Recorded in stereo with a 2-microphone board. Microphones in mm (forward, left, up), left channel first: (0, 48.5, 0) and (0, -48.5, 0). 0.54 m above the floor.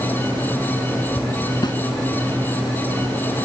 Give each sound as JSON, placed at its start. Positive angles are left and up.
{"t": 1.6, "sound": "a snare drum", "side_deg": 50}